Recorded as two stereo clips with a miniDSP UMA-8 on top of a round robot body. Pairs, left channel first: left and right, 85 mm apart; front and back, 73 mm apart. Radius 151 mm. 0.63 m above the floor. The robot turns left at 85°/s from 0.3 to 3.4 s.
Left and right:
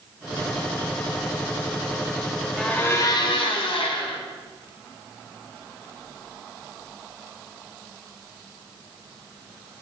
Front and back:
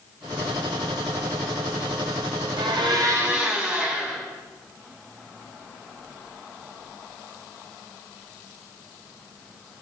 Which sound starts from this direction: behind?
A blender, at 2.6 s.